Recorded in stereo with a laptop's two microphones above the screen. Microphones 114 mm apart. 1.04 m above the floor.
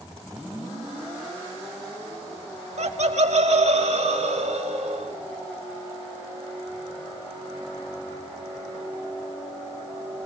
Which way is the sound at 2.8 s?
65° right (ahead or behind).